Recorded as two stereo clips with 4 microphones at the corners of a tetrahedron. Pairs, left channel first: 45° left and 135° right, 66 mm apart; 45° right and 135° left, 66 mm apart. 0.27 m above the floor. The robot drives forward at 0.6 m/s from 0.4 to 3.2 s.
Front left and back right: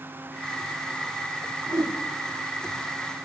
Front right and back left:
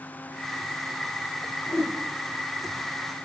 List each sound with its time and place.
1.7 s a whoosh: 110° right, 3.5 m